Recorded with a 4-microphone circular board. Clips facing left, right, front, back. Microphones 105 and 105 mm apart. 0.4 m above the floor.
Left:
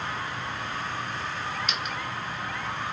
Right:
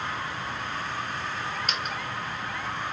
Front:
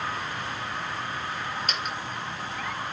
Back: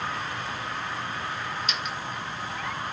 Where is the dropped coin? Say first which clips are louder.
Right 1 dB, front 1 dB; 40° right, 1.7 m.